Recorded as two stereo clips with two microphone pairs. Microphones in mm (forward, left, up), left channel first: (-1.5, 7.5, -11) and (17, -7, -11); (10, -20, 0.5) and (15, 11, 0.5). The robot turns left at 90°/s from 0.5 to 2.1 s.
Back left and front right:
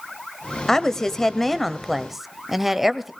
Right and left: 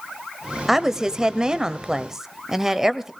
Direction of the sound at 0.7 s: 155° left.